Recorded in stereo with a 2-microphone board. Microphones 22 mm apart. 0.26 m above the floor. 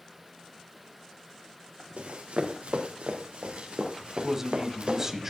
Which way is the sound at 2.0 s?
75° right (ahead or behind).